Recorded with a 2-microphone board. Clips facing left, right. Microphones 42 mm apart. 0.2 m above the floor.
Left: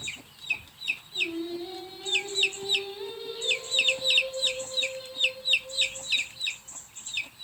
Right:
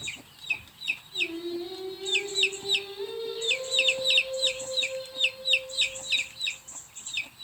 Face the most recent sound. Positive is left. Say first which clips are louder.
# even
turn(degrees=10)  # may be behind; listen again after turning